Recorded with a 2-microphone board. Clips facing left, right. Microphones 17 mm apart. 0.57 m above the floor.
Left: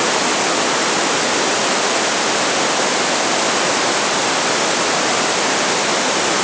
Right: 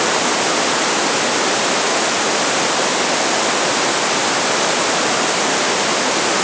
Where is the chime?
I don't hear a chime.